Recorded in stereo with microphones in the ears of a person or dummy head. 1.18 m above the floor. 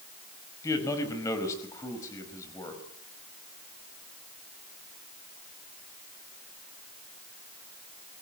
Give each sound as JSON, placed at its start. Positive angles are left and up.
{"t": 0.6, "sound": "a man speaking", "side_deg": 20, "distance_m": 5.0}